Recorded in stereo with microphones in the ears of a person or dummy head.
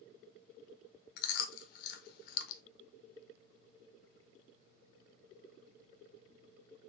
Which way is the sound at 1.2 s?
55° left (ahead or behind).